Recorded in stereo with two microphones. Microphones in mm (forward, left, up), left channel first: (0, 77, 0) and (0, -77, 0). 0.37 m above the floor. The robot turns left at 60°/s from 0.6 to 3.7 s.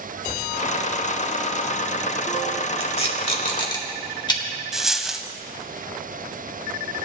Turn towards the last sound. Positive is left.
turn(degrees=0)  # may be behind; listen again after turning